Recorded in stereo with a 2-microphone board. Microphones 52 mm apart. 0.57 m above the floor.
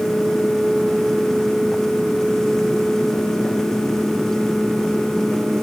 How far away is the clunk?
No clunk in this recording.